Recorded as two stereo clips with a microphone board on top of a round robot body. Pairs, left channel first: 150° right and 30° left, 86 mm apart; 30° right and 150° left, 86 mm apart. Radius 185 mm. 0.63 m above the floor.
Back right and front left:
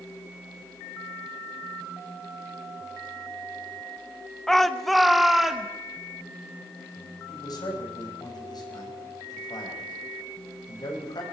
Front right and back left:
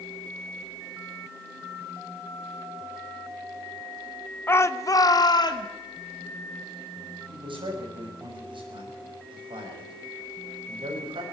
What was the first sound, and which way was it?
A shout, 70° right.